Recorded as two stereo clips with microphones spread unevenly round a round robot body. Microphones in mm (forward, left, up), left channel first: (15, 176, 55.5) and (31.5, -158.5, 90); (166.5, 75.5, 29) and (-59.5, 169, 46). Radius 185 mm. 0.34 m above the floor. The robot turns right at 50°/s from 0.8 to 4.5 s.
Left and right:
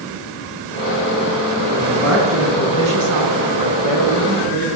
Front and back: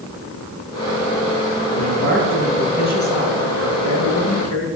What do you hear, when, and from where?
1.7 s a man speaking: 155° right, 4.5 m; by 4.7 s 20° right, 4.5 m